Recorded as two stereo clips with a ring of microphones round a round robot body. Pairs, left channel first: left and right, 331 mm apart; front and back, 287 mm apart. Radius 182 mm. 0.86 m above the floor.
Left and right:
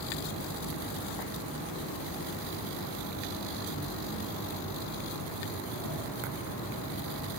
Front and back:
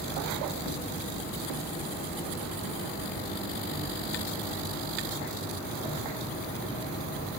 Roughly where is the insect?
Behind left.